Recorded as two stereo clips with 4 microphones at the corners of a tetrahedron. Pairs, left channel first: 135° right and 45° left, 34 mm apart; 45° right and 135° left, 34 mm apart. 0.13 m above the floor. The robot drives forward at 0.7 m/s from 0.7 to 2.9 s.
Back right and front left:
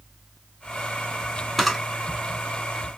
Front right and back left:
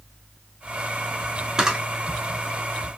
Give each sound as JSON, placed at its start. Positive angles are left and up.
{"t": 1.6, "sound": "a camera shutter", "azimuth_deg": 145, "distance_m": 0.7}